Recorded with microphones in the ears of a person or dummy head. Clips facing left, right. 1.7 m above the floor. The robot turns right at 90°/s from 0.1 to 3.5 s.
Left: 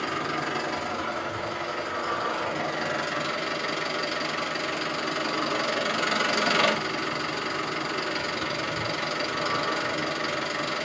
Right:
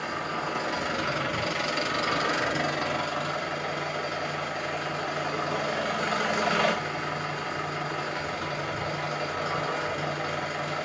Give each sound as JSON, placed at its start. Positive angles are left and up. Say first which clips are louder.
{"t": 0.0, "sound": "an engine running", "louder": "left 3 dB", "azimuth_deg": 125, "distance_m": 0.7}